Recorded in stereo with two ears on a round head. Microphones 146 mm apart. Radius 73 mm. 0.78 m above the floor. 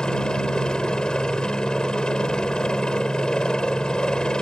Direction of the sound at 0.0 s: 5° left (ahead or behind).